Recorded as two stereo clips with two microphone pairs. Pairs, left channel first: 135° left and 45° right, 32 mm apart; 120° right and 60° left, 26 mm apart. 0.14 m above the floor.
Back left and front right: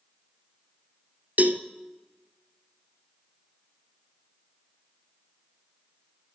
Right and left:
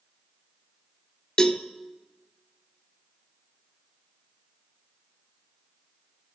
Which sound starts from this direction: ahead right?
A cowbell, at 1.4 s.